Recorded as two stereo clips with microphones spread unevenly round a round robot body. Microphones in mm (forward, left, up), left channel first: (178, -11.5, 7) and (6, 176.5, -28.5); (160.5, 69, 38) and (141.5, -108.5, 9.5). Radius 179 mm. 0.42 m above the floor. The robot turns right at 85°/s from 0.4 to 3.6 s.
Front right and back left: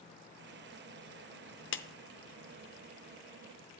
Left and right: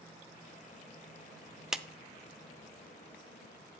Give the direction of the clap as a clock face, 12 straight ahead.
1 o'clock.